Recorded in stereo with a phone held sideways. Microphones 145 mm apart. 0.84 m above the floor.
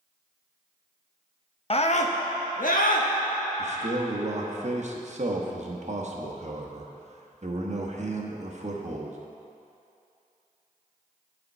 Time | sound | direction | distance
1.7 | a scream | 40° left (ahead or behind) | 0.6 m
3.6 | a man speaking | 55° right (ahead or behind) | 1.0 m